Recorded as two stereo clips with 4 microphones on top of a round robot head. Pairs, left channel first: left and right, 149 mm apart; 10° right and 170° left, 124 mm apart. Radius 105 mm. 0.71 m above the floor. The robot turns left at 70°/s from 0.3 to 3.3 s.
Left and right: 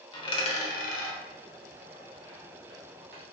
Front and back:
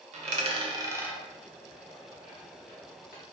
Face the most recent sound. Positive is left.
turn(degrees=-65)